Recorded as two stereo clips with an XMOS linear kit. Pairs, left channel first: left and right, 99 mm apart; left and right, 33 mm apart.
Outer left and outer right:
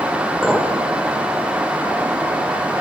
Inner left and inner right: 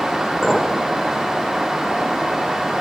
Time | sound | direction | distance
0.4 | a clink | 5° left (ahead or behind) | 0.7 m